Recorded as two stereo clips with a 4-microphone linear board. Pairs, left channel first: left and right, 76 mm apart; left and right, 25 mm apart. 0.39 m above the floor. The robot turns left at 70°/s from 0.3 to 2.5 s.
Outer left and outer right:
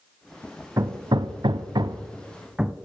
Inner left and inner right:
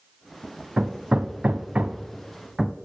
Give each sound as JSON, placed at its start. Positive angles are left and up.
{"t": 0.8, "sound": "hammering", "side_deg": -45, "distance_m": 0.6}